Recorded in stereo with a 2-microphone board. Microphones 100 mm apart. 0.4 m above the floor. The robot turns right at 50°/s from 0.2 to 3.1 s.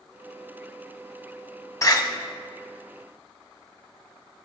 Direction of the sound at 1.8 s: 35° left (ahead or behind).